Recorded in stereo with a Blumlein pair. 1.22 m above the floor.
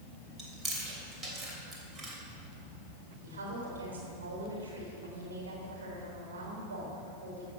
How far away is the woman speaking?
About 4.5 m.